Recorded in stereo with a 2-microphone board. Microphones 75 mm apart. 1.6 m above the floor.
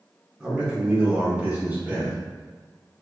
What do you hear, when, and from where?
0.4 s a man speaking: 10° right (ahead or behind), 1.3 m; by 2.1 s 20° right (ahead or behind), 2.5 m